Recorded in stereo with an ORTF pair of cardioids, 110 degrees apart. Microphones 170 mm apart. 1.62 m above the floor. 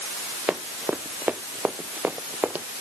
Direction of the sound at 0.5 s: 5° right.